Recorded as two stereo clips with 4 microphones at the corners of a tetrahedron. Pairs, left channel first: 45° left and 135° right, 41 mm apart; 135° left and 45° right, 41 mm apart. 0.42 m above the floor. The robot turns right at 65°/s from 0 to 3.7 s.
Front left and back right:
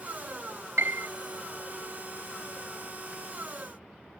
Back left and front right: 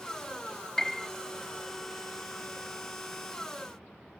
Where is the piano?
150° right; by 1.1 s 130° right.